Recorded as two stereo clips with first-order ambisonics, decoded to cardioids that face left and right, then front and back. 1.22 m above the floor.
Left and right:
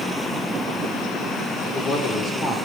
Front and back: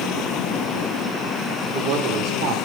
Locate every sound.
1.6 s a man speaking: 145° left, 3 m; by 2.6 s 155° left, 3.5 m